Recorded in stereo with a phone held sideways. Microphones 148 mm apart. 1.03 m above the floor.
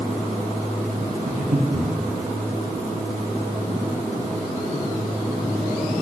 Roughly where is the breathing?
Right.